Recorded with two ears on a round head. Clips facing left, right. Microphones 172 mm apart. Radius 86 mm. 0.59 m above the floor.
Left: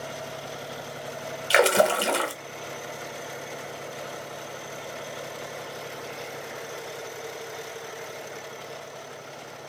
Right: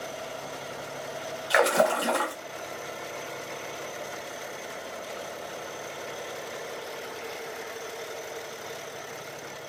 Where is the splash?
35° left (ahead or behind), 0.8 m.